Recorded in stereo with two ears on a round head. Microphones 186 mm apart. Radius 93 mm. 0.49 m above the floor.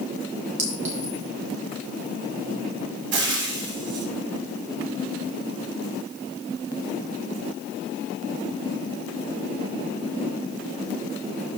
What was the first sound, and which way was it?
A clink, 35° right (ahead or behind).